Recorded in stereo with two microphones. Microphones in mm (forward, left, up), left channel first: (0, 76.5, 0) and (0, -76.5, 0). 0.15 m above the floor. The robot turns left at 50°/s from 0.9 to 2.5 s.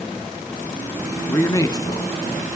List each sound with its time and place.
1.3 s a man speaking: 145° left, 1.1 m; by 2.1 s 105° left, 1.1 m